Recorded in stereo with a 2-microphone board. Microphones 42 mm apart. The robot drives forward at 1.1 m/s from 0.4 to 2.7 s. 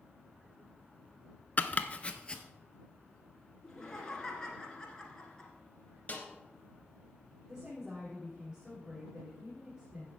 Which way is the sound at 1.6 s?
40° left (ahead or behind).